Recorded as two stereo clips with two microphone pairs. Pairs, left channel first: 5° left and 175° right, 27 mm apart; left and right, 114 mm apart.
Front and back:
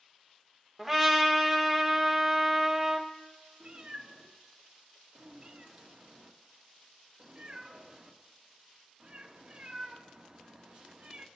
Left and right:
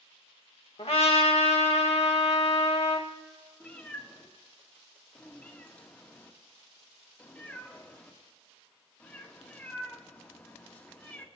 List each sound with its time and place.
0.8 s a trumpet: 95° left, 1.3 m
3.6 s a cat meowing: 160° left, 1.2 m